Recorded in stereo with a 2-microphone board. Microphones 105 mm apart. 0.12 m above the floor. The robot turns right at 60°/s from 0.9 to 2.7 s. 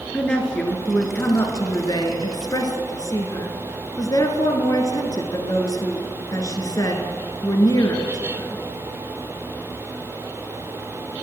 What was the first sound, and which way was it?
A woman speaking, 10° left.